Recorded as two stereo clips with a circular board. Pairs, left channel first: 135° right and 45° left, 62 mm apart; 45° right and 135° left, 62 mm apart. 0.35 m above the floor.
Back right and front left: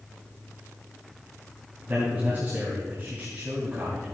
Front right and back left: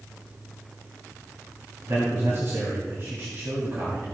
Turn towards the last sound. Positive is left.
turn(degrees=95)